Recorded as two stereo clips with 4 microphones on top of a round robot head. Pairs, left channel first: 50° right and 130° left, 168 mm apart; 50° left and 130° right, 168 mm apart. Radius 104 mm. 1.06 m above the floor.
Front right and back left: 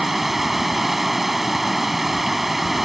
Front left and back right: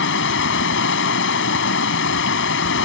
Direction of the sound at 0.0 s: 40° left.